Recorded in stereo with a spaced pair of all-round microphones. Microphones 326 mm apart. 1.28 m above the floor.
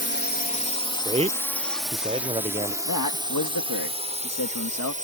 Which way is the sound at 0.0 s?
35° left (ahead or behind).